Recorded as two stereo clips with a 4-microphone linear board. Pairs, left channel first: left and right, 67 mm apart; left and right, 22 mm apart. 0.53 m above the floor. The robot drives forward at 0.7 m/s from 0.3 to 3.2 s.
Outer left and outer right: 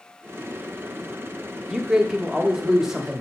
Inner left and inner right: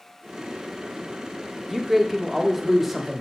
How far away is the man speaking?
About 1.1 m.